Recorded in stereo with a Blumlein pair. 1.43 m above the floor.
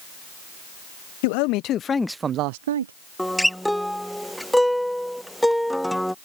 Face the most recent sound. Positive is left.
turn(degrees=0)